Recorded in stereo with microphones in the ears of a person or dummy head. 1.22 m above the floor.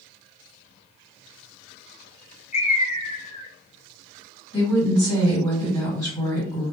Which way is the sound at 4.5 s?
25° left (ahead or behind).